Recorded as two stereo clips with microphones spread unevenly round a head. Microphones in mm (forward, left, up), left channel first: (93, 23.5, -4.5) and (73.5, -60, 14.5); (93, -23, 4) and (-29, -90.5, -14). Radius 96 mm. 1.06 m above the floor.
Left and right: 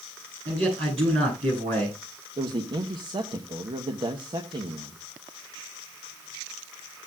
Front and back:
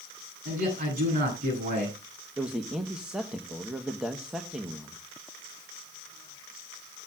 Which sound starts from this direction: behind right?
A man speaking, at 0.5 s.